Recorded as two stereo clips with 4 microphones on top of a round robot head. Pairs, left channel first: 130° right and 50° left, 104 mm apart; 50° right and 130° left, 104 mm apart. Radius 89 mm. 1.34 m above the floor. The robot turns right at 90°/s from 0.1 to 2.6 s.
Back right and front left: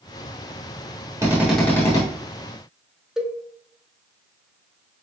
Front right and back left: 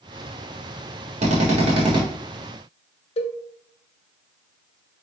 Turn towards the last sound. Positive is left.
turn(degrees=-35)